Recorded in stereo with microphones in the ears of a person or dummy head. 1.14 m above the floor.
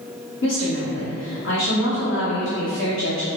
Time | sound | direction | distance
0.4 | a woman speaking | 60° left (ahead or behind) | 1.0 m